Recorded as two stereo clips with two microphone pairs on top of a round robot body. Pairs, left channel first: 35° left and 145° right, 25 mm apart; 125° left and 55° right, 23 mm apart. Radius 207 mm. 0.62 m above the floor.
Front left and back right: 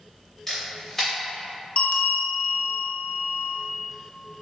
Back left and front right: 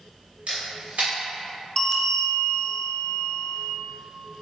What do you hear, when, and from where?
0.5 s a camera shutter: 45° right, 0.5 m
1.8 s a bell: 60° left, 0.7 m